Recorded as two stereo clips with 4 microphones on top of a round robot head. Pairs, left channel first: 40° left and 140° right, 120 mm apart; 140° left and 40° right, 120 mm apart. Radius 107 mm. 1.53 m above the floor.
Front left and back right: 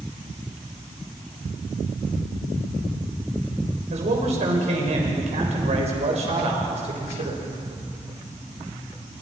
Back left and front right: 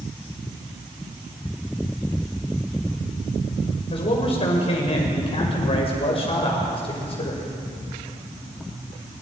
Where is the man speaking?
175° right, 6 m.